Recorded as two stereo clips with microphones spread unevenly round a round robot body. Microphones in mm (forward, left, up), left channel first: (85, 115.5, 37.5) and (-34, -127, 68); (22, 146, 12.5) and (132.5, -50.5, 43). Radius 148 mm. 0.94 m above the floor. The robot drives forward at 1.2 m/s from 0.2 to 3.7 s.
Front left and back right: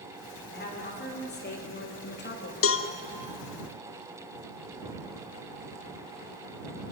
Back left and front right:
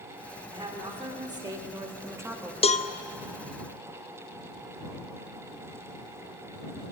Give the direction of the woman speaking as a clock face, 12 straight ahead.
12 o'clock.